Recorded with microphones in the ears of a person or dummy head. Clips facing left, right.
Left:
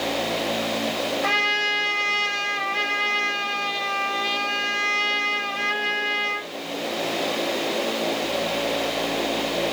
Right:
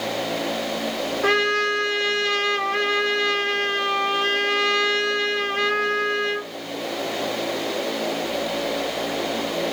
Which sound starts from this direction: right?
A trumpet, at 1.2 s.